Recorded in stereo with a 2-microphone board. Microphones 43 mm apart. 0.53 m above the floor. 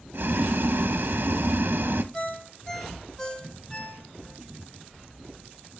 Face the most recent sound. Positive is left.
turn(degrees=20)  # may be behind; listen again after turning